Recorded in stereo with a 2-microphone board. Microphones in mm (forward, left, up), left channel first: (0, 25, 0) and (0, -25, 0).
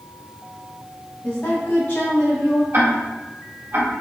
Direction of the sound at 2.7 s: 55° right (ahead or behind).